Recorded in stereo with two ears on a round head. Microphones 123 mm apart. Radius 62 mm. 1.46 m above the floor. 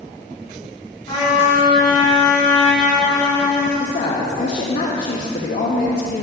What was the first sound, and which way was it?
A trumpet, 30° left (ahead or behind).